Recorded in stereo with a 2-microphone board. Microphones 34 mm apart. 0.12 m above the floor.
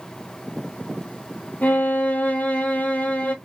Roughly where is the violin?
Left.